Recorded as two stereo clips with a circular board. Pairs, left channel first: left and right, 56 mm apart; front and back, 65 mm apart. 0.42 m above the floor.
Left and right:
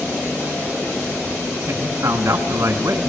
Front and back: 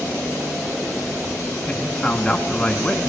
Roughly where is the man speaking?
Right.